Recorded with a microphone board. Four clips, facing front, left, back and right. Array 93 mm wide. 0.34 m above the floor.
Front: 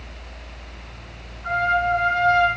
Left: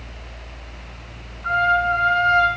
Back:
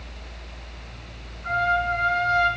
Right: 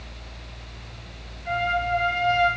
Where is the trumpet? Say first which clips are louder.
Left 7 dB, front 2 dB; 70° left, 4 m.